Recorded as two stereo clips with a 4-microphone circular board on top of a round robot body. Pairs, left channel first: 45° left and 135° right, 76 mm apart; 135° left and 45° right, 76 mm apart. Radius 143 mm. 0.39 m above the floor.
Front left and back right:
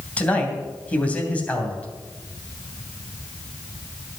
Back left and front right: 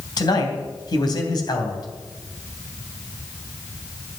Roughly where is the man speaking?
Behind left.